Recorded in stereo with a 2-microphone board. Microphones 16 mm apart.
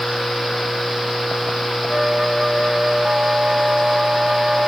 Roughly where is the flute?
Right.